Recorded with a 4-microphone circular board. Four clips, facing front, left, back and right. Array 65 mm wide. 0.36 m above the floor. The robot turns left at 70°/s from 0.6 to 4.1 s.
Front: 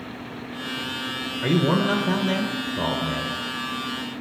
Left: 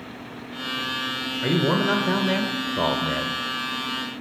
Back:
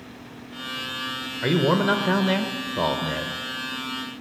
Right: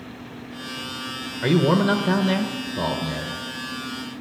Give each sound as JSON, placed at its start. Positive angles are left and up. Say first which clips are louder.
{"t": 1.4, "sound": "a man speaking", "louder": "right 3 dB, back 1 dB", "azimuth_deg": -125, "distance_m": 1.0}